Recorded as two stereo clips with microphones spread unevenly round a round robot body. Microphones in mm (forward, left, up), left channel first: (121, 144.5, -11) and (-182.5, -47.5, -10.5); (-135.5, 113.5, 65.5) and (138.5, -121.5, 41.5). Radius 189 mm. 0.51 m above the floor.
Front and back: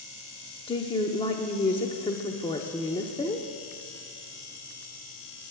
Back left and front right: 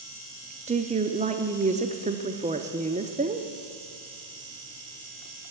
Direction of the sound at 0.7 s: 20° right.